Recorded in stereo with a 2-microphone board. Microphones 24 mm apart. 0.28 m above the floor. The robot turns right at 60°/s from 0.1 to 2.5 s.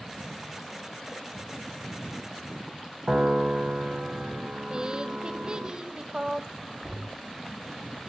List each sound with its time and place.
3.1 s a piano: 45° right (ahead or behind), 1.8 m
4.7 s a woman speaking: 35° right (ahead or behind), 1.1 m
6.8 s knocking: 15° right (ahead or behind), 7.5 m